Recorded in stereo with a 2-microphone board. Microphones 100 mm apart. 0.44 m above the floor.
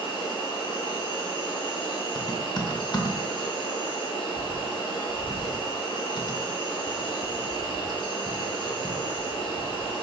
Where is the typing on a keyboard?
45° left (ahead or behind), 0.6 m.